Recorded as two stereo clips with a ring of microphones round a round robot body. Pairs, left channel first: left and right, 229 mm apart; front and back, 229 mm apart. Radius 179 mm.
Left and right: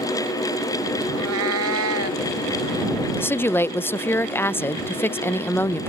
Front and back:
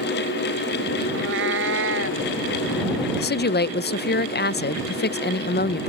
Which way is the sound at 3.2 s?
10° left.